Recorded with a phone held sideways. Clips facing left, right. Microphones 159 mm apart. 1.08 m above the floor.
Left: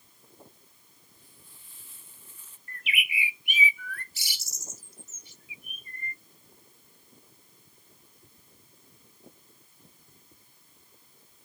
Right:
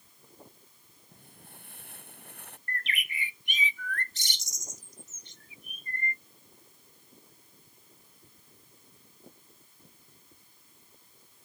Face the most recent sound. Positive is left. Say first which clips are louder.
# left 1 dB
turn(degrees=10)  # may be behind; listen again after turning